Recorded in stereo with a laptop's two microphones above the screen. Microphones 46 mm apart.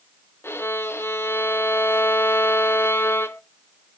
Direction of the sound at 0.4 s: 60° left (ahead or behind).